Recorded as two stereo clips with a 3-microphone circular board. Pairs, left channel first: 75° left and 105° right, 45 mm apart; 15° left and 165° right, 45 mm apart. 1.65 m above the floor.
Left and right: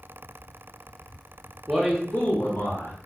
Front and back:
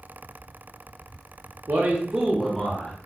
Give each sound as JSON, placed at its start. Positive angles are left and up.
{"t": 1.7, "sound": "a man speaking", "azimuth_deg": 175, "distance_m": 0.5}